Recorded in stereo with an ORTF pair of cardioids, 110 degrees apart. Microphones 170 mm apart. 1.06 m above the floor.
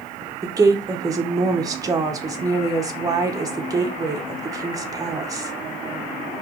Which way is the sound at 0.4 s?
20° right.